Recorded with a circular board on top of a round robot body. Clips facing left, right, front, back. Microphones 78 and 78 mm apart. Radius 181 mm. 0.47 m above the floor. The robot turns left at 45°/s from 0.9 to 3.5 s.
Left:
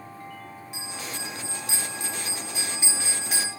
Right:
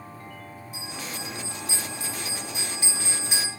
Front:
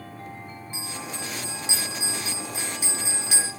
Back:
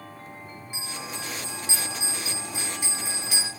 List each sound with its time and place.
0.7 s a bell: 105° left, 0.7 m; by 3.5 s 10° right, 0.7 m